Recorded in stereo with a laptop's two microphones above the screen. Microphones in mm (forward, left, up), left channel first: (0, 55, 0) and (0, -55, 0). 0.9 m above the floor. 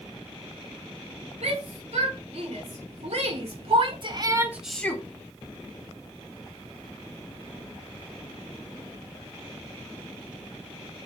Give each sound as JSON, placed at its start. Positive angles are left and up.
{"t": 1.4, "sound": "a shout", "side_deg": -80, "distance_m": 4.5}